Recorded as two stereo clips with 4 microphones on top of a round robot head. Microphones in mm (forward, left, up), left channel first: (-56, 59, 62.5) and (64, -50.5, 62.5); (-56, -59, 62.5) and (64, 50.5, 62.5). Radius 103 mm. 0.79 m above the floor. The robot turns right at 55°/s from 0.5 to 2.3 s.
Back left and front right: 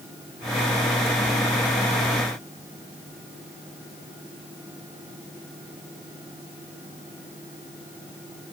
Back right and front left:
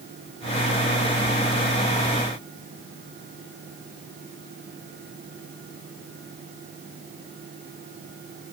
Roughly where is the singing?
No singing in this recording.